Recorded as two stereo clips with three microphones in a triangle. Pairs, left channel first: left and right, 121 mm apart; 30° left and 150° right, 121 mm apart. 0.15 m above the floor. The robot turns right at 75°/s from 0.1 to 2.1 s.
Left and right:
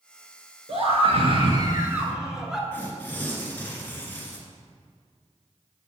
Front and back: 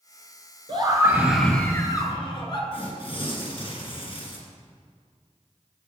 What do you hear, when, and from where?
0.7 s a scream: 115° right, 1.8 m; by 2.6 s 5° right, 1.8 m
2.7 s tearing paper: 20° left, 1.8 m